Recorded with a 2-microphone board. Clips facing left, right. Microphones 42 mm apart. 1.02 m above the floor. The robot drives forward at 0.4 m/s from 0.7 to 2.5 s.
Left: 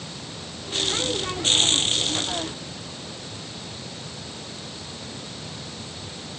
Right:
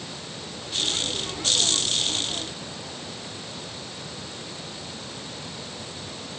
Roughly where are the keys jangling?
I don't hear keys jangling.